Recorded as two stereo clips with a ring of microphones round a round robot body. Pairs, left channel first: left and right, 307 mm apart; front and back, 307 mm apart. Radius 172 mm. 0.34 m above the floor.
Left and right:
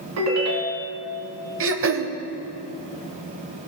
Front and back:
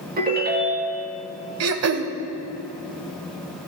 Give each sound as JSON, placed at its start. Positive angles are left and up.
{"t": 0.2, "sound": "a ringtone", "azimuth_deg": -120, "distance_m": 2.5}
{"t": 1.6, "sound": "throat clearing", "azimuth_deg": -140, "distance_m": 0.9}